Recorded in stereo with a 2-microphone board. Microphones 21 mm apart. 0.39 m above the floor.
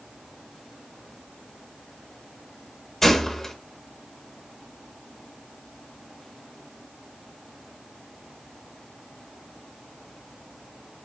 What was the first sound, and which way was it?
A gunshot, 20° left (ahead or behind).